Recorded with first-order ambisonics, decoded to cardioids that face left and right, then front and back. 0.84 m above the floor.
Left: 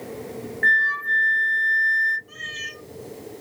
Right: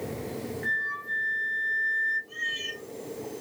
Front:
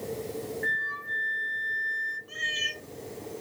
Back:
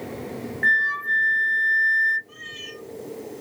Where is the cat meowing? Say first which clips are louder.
Right 1 dB, front 7 dB; 20° left, 1.2 m.